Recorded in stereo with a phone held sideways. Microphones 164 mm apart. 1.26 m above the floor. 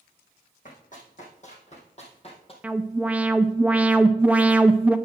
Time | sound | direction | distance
0.7 | running footsteps | 55° left (ahead or behind) | 3.5 m
2.6 | an alarm | 10° right (ahead or behind) | 0.5 m